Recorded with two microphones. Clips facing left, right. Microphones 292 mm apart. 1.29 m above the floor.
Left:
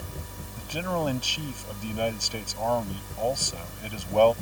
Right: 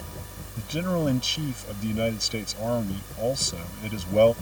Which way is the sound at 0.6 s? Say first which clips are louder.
Right 3 dB; 25° right (ahead or behind).